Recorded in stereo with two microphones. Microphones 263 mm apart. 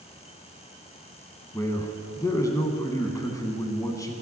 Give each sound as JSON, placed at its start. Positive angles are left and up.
{"t": 1.5, "sound": "a man speaking", "side_deg": 10, "distance_m": 1.1}